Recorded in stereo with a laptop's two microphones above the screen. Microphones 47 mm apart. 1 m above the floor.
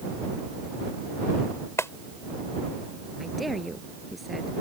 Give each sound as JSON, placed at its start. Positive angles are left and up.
{"t": 1.8, "sound": "a clap", "side_deg": 85}
{"t": 3.2, "sound": "a woman speaking", "side_deg": 0}